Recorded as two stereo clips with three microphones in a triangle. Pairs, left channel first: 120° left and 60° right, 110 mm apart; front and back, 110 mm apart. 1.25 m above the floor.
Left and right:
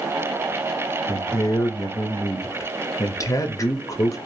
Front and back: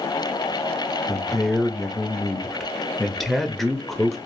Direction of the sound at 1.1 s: 90° left.